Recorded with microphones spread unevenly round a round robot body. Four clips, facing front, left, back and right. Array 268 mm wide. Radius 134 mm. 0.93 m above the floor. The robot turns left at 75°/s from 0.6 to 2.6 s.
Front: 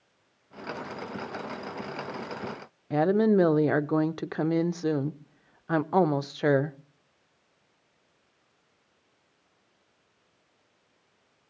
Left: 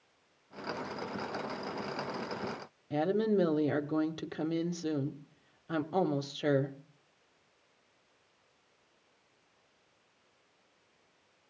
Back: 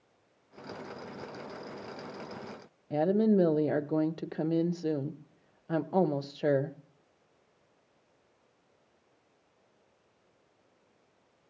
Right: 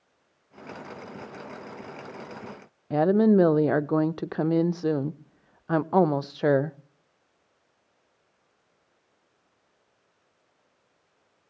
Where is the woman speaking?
45° right, 0.6 m.